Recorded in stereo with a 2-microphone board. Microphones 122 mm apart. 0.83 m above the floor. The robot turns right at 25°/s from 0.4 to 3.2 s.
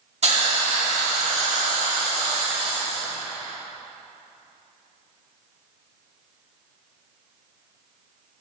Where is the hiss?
115° right, 1.8 m; by 3.0 s 50° right, 1.8 m.